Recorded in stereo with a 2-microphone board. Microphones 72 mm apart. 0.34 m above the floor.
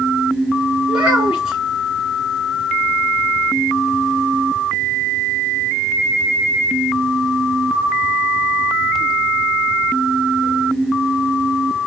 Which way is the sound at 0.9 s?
15° right (ahead or behind).